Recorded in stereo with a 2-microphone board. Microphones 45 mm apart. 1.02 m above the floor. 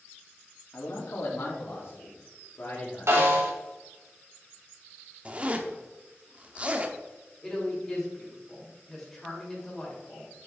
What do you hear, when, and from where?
0.7 s a man speaking: 70° left (ahead or behind), 2.5 m; by 3.5 s 60° left (ahead or behind), 4.5 m
3.1 s a snare drum: 75° right (ahead or behind), 3.5 m
5.2 s a zipper: 30° right (ahead or behind), 1.1 m
7.4 s a woman speaking: 10° left (ahead or behind), 4 m